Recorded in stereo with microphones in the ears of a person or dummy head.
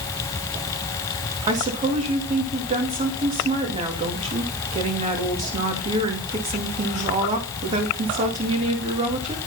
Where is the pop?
I don't hear a pop.